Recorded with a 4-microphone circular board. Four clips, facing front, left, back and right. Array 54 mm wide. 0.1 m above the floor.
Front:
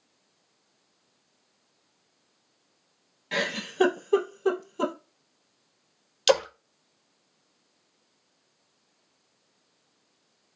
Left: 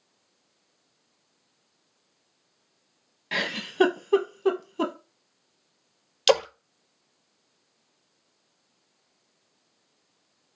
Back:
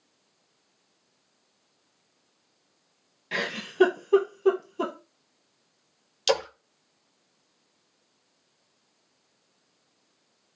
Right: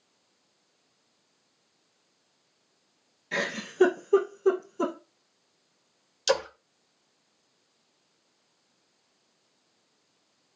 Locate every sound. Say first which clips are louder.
3.3 s a giggle: left 2 dB, front 1 dB; 95° left, 1.3 m
6.3 s a splash: left 5 dB, front 3 dB; 80° left, 0.7 m